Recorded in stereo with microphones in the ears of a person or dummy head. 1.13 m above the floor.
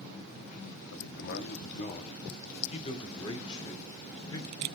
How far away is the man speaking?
About 1.7 m.